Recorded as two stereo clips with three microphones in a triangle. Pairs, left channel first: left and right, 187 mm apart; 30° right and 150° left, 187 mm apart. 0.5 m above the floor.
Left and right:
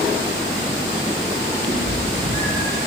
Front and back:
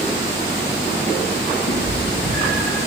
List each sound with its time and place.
1.7 s a cat meowing: 45° right, 3.5 m